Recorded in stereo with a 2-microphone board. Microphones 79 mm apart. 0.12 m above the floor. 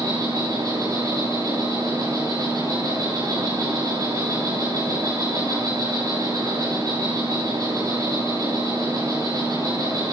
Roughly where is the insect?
Right.